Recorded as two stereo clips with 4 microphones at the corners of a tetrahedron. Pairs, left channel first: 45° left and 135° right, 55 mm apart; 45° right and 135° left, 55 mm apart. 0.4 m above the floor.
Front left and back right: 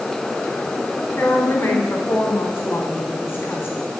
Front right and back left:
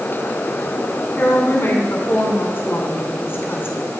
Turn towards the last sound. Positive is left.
turn(degrees=0)